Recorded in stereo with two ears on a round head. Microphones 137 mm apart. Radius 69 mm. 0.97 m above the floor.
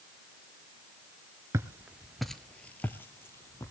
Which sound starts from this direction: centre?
Footsteps, at 1.5 s.